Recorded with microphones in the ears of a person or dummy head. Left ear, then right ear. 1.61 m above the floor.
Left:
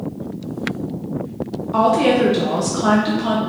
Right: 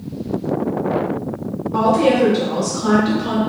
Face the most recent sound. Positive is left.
turn(degrees=80)